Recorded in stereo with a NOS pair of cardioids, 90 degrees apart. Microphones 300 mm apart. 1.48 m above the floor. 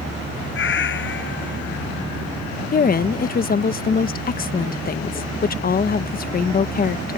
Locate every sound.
0.5 s a cat meowing: 45° left; by 1.8 s 40° left
2.7 s a woman speaking: 30° left